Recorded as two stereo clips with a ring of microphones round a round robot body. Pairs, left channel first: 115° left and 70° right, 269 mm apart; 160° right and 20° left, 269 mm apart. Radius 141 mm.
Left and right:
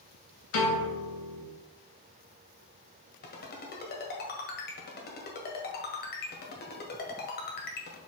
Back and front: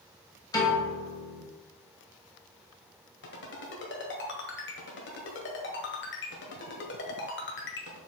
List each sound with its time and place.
0.5 s a piano: 130° left, 2.5 m
3.2 s a ringtone: 160° left, 1.6 m